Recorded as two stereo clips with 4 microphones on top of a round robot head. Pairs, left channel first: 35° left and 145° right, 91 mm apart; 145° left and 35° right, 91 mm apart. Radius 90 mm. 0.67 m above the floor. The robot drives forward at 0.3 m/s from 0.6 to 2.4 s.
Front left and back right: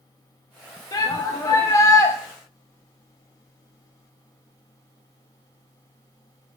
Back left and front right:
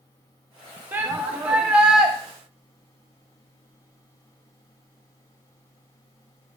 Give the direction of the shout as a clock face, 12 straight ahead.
11 o'clock.